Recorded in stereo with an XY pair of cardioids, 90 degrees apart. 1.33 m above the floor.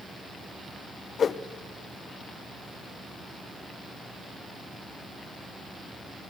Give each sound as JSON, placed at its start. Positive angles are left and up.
{"t": 1.2, "sound": "a whoosh", "azimuth_deg": 55, "distance_m": 0.7}